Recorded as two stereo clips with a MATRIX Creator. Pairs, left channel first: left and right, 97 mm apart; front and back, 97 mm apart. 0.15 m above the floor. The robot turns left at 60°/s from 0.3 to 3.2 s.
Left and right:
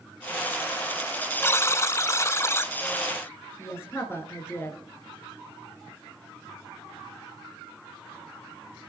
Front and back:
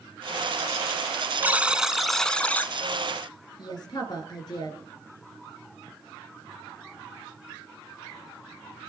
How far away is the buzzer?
About 0.7 m.